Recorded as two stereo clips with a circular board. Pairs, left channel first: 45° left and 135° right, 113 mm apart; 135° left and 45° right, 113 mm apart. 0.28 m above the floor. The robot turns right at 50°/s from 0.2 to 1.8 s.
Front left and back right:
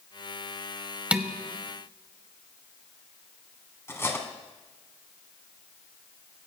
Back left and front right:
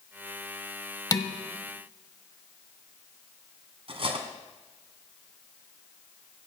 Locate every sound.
1.1 s dishes clattering: 155° left, 0.9 m; by 1.3 s 165° left, 0.9 m
3.9 s cutlery clinking: 20° right, 1.6 m